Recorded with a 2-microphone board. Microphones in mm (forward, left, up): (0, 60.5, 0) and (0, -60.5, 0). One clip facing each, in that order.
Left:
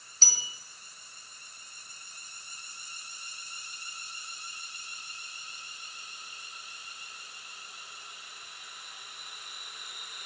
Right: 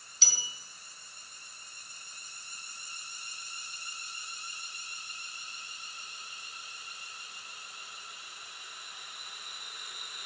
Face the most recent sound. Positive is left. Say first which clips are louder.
# left 2 dB
turn(degrees=45)  # may be behind; listen again after turning